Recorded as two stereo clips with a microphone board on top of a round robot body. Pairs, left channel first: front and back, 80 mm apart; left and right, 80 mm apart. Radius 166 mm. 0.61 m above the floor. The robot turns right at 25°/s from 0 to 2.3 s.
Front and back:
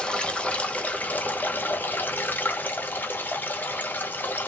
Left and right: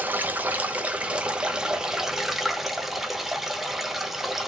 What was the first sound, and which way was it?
Running water, 65° right.